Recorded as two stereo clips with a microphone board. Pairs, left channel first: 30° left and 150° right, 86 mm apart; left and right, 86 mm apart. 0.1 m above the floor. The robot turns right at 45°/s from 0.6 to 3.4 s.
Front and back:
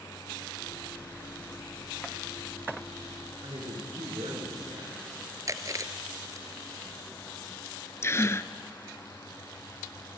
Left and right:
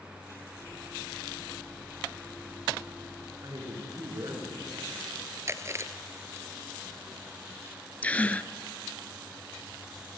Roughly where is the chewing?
Behind right.